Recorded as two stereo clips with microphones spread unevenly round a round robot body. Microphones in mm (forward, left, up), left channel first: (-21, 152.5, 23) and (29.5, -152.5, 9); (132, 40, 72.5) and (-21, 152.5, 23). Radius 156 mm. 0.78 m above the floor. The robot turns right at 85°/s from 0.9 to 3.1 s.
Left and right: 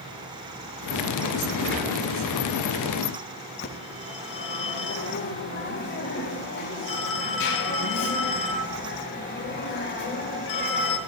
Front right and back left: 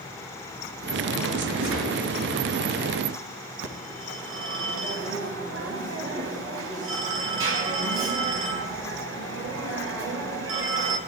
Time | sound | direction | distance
1.6 | a gunshot | 145° left | 8.5 m
3.6 | a phone ringing | 155° left | 3 m